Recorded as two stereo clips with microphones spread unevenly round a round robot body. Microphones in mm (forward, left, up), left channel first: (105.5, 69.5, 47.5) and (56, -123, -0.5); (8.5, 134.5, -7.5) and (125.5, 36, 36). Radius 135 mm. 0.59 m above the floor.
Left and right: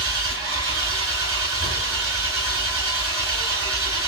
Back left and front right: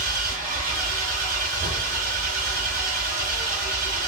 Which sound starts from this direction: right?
An engine running, at 0.0 s.